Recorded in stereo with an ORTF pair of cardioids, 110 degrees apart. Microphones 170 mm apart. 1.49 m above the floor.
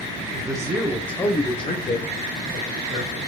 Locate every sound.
0.3 s a man speaking: 25° right, 0.9 m; by 3.2 s 60° left, 1.7 m